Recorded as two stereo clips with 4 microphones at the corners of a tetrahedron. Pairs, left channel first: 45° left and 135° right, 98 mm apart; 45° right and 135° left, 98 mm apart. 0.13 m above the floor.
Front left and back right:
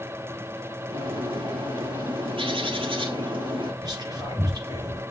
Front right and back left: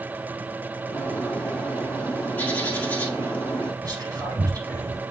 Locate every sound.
0.9 s a bird: 120° right, 1.5 m
3.8 s whispering: 175° right, 4.5 m